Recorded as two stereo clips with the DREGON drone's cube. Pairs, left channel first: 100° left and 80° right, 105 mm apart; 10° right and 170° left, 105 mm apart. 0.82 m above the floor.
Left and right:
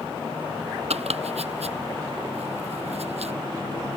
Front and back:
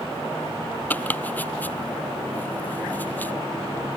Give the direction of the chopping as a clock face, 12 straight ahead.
3 o'clock.